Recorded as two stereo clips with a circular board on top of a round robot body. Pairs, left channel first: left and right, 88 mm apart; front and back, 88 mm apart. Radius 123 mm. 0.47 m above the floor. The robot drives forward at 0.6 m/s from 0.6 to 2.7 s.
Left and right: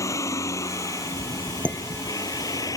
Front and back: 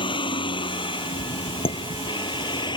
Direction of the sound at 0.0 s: 30° left.